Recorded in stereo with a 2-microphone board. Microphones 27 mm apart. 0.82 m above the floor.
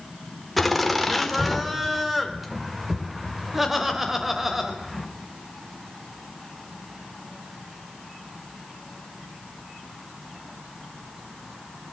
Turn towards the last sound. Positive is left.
turn(degrees=-10)  # may be behind; listen again after turning